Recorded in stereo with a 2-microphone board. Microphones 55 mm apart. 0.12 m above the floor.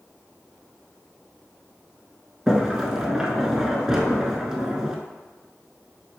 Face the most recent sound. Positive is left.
turn(degrees=-10)  # may be behind; listen again after turning